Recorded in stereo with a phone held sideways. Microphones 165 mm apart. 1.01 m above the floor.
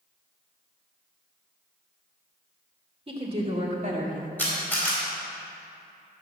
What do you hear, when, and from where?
3.1 s a woman speaking: 35° right (ahead or behind), 2.5 m; by 4.3 s 55° right (ahead or behind), 1.6 m
4.4 s a camera shutter: 10° left (ahead or behind), 4 m